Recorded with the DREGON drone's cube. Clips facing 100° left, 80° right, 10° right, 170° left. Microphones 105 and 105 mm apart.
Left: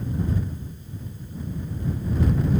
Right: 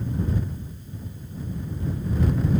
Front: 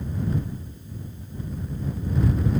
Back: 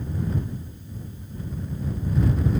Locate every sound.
Only background noise.